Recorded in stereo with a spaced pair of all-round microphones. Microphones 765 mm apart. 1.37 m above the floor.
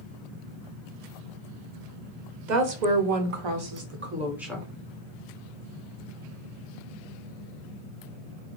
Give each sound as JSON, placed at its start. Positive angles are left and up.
{"t": 2.5, "sound": "a woman speaking", "side_deg": -70, "distance_m": 1.0}